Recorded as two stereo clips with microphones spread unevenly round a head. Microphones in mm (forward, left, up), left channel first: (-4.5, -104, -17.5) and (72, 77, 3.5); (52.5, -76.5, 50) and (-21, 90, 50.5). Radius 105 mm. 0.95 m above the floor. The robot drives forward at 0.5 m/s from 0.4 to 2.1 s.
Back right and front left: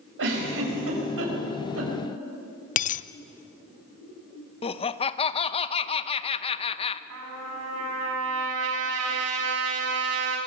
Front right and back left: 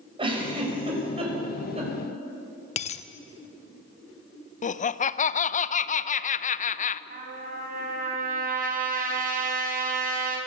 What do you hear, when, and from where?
0.2 s a giggle: 50° left, 5.5 m; by 1.9 s 60° left, 5 m
2.8 s a dropped coin: 95° right, 0.5 m
4.6 s laughter: 80° right, 0.7 m
7.1 s a trumpet: 70° left, 4.5 m